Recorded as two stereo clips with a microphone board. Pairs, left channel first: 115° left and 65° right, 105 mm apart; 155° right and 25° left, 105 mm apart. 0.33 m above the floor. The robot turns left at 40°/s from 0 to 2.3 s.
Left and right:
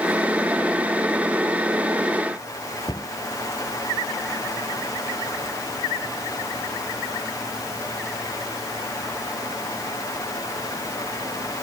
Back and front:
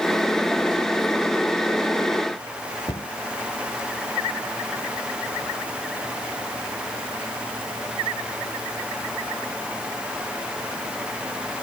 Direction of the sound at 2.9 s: 160° left.